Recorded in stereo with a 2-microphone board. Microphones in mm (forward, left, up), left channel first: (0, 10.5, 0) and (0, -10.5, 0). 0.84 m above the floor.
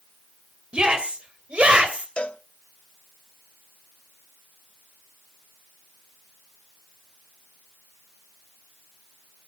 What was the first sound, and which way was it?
A shout, 55° right (ahead or behind).